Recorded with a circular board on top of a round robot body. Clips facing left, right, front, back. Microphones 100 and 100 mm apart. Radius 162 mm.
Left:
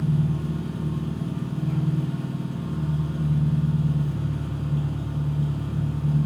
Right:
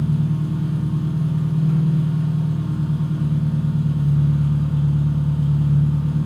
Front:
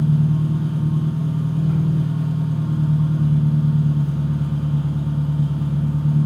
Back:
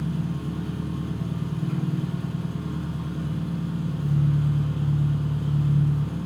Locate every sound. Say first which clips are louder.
0.0 s an engine running: right 3 dB, front 9 dB; 45° right, 2.5 m